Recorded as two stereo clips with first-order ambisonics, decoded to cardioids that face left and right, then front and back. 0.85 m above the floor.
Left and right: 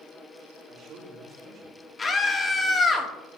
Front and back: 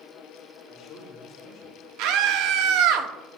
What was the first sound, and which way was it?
A man speaking, 50° right.